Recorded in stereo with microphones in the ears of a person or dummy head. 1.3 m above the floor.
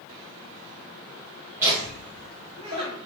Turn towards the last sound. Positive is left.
turn(degrees=-45)  # may be behind; listen again after turning